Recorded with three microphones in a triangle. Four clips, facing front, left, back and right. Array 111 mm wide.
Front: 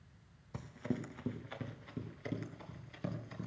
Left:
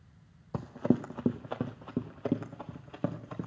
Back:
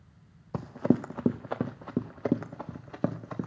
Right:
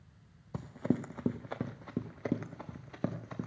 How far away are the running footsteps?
About 0.6 m.